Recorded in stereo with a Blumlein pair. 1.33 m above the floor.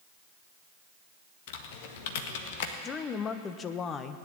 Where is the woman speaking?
25° left, 1.1 m.